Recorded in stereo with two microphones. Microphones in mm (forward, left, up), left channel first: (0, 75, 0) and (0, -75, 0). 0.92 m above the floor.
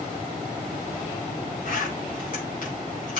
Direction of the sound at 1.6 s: 65° left (ahead or behind).